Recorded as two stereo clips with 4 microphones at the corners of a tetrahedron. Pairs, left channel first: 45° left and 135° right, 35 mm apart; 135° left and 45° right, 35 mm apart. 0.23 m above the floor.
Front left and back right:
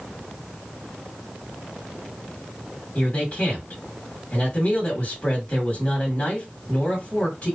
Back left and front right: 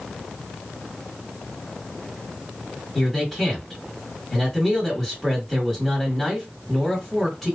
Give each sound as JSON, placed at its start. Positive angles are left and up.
{"t": 3.0, "sound": "a man speaking", "azimuth_deg": 55, "distance_m": 1.6}